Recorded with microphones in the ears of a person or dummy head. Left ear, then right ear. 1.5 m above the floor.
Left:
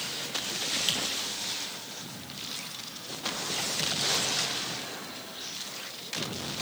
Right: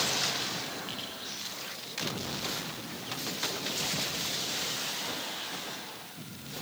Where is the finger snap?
80° left, 3 m.